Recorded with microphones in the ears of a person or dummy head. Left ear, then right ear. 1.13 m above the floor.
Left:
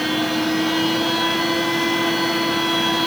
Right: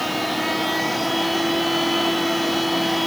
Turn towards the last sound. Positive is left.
turn(degrees=0)  # may be behind; listen again after turning